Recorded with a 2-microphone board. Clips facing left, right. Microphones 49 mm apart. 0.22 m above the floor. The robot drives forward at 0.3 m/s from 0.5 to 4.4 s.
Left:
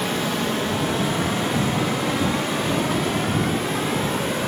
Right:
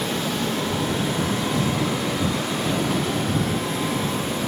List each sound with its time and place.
0.0 s running water: 75° left (ahead or behind), 3 m; by 4.5 s 80° left, 3 m